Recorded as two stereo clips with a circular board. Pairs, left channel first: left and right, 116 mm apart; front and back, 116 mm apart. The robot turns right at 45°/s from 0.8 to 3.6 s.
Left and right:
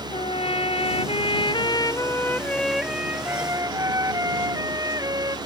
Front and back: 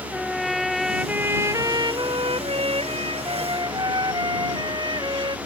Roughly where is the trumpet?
Left.